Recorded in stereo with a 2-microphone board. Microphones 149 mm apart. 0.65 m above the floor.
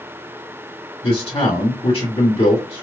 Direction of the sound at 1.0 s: 40° left (ahead or behind).